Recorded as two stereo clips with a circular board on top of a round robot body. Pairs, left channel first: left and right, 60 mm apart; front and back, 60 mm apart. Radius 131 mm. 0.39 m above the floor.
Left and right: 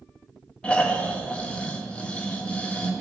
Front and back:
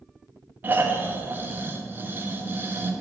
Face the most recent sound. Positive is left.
turn(degrees=150)